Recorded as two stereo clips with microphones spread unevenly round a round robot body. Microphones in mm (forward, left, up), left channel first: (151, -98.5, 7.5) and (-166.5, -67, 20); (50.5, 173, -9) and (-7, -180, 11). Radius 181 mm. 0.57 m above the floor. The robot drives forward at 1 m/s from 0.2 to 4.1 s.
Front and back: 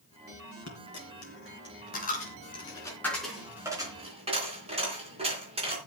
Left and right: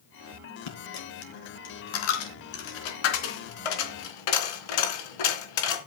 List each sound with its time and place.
0.7 s a dropped coin: 45° left, 4.5 m; by 5.8 s 100° left, 3 m